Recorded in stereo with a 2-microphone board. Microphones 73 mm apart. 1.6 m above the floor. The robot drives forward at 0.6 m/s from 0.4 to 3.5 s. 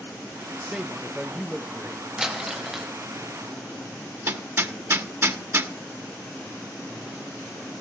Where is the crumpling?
10° right (ahead or behind), 1.4 m.